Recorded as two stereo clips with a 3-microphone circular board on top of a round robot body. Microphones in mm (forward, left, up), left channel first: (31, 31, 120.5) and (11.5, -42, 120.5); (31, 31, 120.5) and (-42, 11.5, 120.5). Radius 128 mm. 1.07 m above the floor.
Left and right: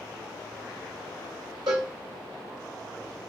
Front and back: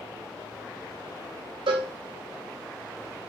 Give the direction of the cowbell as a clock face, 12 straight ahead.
5 o'clock.